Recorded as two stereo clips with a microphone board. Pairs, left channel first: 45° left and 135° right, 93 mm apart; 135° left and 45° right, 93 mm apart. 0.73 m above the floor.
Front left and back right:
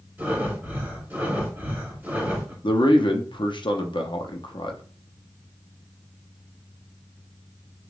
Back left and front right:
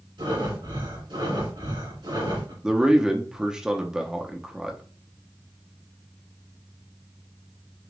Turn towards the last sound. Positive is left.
turn(degrees=35)